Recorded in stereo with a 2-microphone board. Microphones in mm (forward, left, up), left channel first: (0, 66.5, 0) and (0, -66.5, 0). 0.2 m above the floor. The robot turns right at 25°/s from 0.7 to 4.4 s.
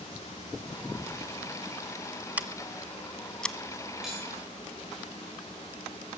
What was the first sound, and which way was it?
Scissors, 10° right (ahead or behind).